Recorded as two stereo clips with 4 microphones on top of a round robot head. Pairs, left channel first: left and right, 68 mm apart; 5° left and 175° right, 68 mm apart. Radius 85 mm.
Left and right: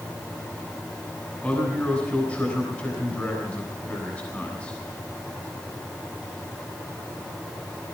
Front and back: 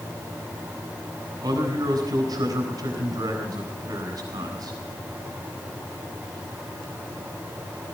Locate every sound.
1.4 s a man speaking: 165° left, 4 m